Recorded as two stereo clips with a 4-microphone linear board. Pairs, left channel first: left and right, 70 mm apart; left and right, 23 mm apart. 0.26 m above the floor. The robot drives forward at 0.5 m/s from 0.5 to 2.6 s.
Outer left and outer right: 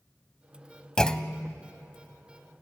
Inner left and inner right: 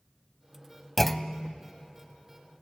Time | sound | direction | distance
1.0 | a clunk | 10° left (ahead or behind) | 0.6 m